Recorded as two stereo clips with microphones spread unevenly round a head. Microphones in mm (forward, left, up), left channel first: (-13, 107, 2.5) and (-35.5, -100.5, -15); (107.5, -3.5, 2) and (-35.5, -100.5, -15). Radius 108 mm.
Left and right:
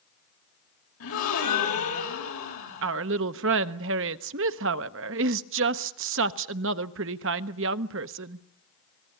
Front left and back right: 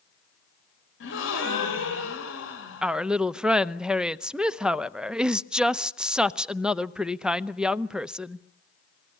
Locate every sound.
1.0 s a gasp: 55° left, 3.5 m
2.8 s a woman speaking: 60° right, 0.8 m